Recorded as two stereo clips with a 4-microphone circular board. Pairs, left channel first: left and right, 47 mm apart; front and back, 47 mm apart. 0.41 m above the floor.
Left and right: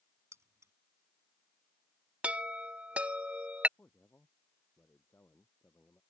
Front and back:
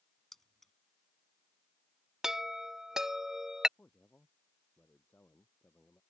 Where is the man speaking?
50° left.